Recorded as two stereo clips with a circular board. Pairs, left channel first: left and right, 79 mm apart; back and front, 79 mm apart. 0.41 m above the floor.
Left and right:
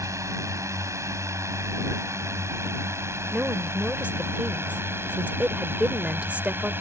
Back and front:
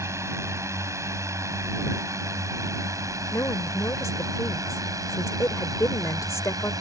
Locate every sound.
0.0 s a drone: 45° right; by 6.8 s 30° right
3.3 s a woman speaking: 155° right